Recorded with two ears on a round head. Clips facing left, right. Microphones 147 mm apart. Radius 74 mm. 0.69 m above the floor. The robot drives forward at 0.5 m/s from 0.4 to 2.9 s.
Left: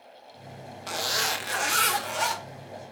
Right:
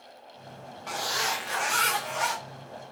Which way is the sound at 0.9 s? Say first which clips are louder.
Even; 40° left (ahead or behind).